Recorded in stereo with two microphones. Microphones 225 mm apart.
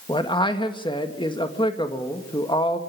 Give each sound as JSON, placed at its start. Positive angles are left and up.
{"t": 0.1, "sound": "a man speaking", "side_deg": 20, "distance_m": 2.0}